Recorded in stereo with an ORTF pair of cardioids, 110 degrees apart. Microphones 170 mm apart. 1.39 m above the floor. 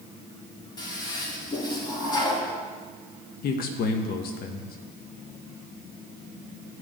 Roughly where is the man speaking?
Ahead left.